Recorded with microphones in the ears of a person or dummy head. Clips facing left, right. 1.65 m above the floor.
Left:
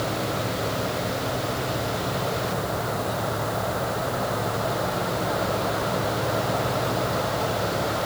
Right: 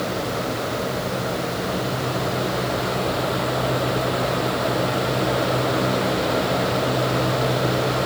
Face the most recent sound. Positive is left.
No sound to turn to.